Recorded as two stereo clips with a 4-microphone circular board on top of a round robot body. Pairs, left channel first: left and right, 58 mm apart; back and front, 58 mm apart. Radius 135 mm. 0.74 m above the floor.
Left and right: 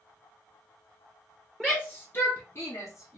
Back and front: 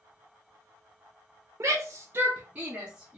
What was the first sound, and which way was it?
A shout, 15° left.